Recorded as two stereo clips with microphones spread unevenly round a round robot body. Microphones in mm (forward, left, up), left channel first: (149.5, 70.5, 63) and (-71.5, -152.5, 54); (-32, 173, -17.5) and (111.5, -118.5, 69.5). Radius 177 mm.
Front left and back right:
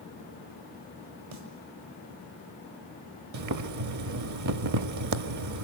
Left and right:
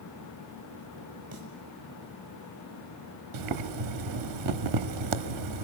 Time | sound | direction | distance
1.3 | a snare drum | 135° right | 5.5 m
3.3 | boiling | 100° right | 1.2 m